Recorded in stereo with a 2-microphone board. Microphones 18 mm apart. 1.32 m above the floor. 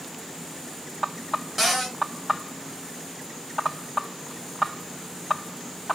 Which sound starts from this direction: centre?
A cupboard door, at 1.6 s.